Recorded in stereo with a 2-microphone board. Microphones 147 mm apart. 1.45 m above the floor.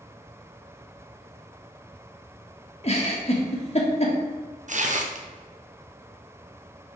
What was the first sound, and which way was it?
A giggle, 45° left (ahead or behind).